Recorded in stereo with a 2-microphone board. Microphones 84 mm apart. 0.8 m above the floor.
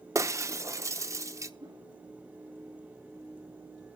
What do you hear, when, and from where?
0.1 s breaking glass: 40° right (ahead or behind), 0.6 m
1.6 s a whoosh: 50° right (ahead or behind), 6.5 m